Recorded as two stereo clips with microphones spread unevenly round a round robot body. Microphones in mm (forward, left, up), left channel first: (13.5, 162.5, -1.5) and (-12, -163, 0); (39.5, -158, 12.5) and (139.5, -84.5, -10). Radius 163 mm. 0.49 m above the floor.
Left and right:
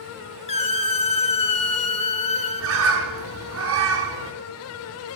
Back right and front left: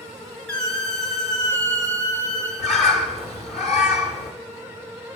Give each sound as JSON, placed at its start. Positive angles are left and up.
{"t": 0.5, "sound": "a squeak", "azimuth_deg": 125, "distance_m": 0.5}
{"t": 2.6, "sound": "a bird", "azimuth_deg": -130, "distance_m": 0.9}